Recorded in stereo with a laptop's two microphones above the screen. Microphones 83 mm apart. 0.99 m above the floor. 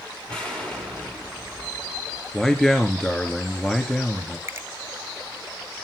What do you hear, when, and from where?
0.3 s an explosion: 10° left (ahead or behind), 1.7 m
2.3 s a man speaking: 10° left (ahead or behind), 2 m
4.5 s a finger snap: 30° right (ahead or behind), 0.6 m